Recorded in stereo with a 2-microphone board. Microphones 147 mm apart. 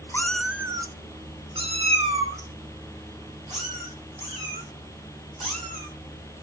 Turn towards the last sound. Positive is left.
turn(degrees=-55)  # may be behind; listen again after turning